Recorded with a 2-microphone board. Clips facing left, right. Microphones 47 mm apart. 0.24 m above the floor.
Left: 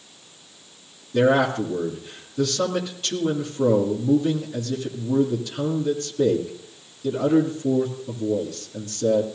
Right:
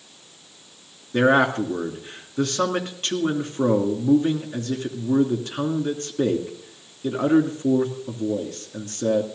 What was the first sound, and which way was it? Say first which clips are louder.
A man speaking: right 1 dB; 45° right (ahead or behind).